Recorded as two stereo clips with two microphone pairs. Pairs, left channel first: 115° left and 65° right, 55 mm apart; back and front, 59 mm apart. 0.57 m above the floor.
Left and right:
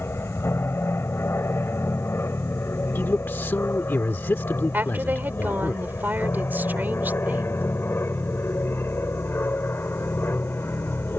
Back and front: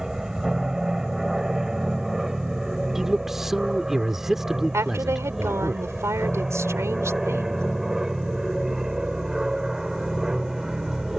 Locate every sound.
0.0 s an aircraft: 80° left
3.0 s a man speaking: 80° left
4.7 s a woman speaking: 20° right